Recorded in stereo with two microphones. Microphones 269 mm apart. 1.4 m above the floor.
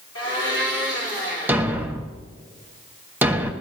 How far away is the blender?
About 4 m.